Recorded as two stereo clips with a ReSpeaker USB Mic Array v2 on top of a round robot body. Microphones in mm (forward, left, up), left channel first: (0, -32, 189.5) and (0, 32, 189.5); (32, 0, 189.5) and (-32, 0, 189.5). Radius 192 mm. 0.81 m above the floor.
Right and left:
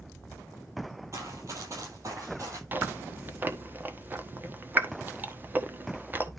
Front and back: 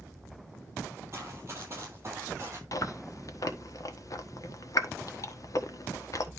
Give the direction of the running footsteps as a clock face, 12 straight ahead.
8 o'clock.